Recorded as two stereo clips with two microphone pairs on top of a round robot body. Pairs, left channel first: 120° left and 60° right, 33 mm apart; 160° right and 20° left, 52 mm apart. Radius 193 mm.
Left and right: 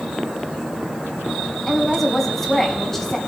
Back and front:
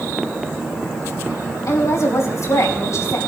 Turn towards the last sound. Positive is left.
turn(degrees=-160)